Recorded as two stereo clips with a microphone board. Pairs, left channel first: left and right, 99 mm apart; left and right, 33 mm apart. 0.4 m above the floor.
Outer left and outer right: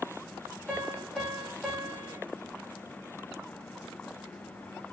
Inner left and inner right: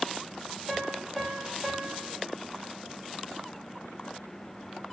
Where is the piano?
5° left (ahead or behind), 1.3 m.